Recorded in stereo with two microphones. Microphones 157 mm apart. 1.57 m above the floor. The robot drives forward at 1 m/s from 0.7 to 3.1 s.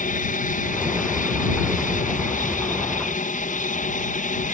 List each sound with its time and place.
0.0 s an aircraft: 60° left (ahead or behind); by 4.5 s 55° left (ahead or behind)